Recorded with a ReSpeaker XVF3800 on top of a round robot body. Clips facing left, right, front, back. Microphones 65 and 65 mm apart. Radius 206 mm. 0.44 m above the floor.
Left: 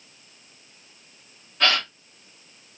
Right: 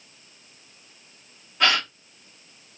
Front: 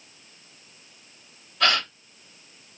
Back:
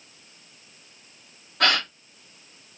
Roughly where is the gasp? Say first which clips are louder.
Right 1 dB, even; behind.